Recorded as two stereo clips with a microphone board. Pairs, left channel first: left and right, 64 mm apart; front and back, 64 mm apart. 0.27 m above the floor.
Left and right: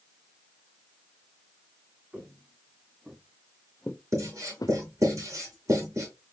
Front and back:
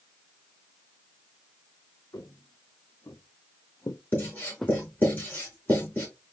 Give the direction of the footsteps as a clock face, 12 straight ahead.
1 o'clock.